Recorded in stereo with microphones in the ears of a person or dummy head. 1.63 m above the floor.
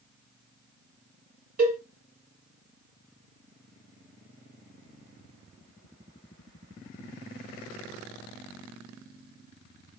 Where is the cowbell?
40° right (ahead or behind), 2.5 m.